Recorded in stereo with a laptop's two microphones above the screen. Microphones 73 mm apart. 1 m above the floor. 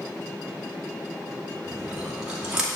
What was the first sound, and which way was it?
Chewing, 10° right (ahead or behind).